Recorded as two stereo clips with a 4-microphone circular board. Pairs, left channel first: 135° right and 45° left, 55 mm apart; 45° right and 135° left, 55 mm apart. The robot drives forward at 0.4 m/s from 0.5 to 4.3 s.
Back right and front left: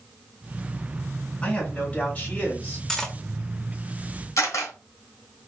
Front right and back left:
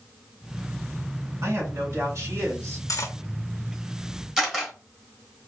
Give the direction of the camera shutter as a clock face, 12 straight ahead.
5 o'clock.